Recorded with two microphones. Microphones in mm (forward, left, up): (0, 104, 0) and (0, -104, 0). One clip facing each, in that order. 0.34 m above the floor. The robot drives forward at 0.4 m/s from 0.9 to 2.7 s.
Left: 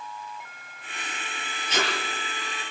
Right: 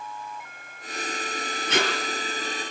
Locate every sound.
1.7 s tape being pulled: 60° right (ahead or behind), 4.5 m